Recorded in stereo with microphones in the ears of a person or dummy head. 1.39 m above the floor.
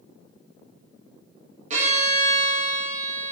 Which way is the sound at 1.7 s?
45° right (ahead or behind).